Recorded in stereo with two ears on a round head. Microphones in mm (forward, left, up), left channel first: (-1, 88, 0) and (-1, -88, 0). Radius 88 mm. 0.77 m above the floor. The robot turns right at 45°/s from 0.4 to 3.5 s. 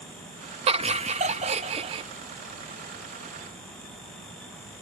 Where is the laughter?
115° right; by 2.0 s 55° right.